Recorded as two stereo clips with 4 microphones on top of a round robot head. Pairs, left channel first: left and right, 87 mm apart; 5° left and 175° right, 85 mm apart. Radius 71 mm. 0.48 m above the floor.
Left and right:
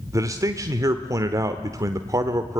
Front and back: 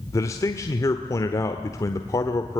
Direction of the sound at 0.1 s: 45° right.